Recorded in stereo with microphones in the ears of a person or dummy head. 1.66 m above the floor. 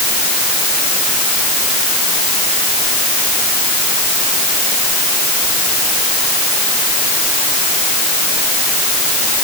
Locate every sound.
Only background noise.